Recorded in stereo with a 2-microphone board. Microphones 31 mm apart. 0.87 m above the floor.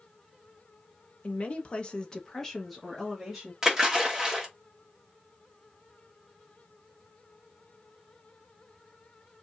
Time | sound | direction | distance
1.2 | a woman speaking | 45° left (ahead or behind) | 1.1 m
3.6 | a splash | 10° right (ahead or behind) | 1.4 m